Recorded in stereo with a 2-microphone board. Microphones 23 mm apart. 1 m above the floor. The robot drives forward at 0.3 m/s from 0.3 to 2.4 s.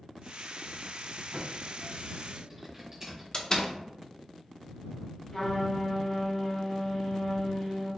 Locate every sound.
1.3 s typing on a keyboard: 25° right (ahead or behind), 1.6 m
3.3 s a door slam: 35° left (ahead or behind), 0.5 m
5.3 s a trumpet: 20° left (ahead or behind), 1.9 m